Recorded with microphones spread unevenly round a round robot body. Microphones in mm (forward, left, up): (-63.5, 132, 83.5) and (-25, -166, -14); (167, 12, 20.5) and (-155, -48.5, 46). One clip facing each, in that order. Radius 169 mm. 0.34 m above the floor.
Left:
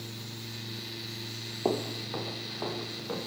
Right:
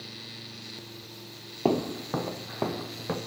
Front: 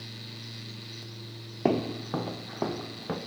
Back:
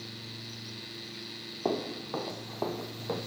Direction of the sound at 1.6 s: 25° right.